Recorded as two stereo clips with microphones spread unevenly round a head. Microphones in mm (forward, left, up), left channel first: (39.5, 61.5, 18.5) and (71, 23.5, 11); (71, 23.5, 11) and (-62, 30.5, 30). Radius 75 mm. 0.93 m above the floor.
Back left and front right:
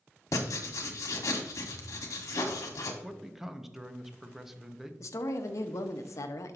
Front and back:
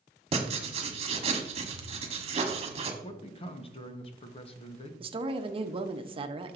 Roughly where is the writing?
Behind left.